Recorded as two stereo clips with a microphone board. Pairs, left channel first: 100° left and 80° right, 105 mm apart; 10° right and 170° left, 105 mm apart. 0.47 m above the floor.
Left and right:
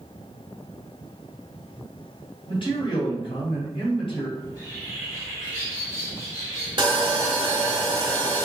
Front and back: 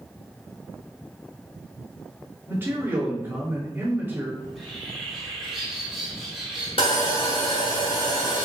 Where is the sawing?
40° right, 1.3 m.